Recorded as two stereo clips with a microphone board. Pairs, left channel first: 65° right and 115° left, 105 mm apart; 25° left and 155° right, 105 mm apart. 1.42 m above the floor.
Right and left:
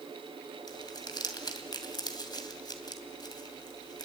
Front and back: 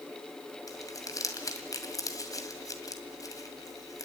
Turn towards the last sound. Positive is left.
turn(degrees=-30)